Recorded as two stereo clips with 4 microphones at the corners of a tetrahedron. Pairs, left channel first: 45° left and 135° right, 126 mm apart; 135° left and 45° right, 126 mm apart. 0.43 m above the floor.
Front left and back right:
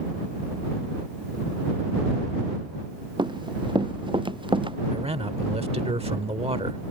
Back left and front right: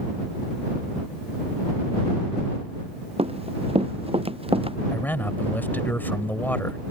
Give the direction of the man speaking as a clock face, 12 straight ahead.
5 o'clock.